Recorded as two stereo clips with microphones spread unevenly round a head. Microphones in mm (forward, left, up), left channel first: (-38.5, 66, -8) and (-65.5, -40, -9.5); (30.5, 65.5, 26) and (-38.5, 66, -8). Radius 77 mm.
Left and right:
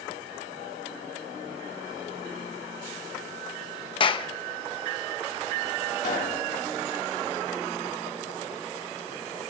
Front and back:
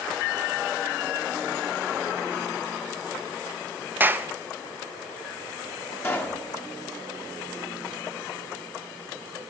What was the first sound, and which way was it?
A clap, 120° left.